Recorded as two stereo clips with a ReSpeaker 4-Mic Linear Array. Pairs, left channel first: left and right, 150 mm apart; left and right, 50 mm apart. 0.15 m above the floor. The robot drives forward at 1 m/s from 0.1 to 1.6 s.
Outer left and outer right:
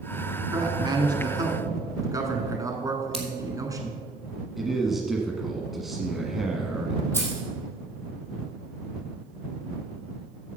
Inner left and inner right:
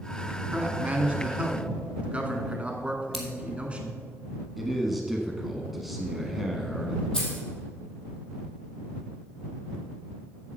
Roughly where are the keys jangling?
Centre.